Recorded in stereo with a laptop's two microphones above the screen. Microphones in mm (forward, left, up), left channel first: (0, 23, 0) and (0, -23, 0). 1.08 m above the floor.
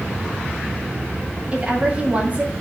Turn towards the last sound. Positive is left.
turn(degrees=-30)  # may be behind; listen again after turning